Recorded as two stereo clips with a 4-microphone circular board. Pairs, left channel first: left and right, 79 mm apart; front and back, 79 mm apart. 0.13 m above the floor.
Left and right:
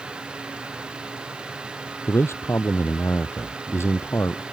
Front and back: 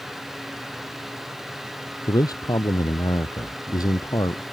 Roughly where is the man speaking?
Ahead left.